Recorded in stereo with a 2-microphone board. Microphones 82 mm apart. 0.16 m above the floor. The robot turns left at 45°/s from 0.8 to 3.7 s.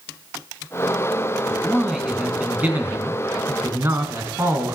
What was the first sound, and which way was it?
A man speaking, 10° left.